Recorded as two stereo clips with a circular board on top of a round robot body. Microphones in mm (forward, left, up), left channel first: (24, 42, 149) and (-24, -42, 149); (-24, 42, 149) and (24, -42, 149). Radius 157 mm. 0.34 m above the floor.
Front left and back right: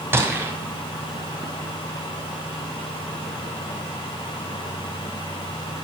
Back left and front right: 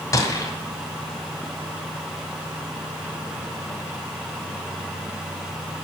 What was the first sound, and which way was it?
A gunshot, 175° left.